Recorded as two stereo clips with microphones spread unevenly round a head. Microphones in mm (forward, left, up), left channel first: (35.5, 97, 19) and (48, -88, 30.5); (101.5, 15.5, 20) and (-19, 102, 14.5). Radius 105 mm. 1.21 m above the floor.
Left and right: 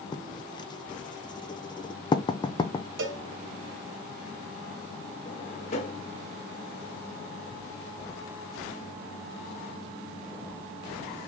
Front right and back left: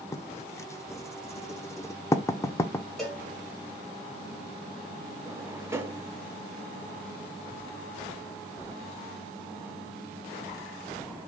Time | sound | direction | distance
0.1 | writing | 35° left | 0.7 m
3.0 | a cowbell | 125° right | 0.9 m
5.2 | a drawer | 80° left | 0.9 m